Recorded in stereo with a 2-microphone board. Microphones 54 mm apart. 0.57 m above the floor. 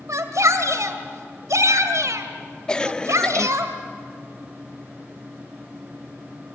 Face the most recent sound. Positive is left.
turn(degrees=15)  # may be behind; listen again after turning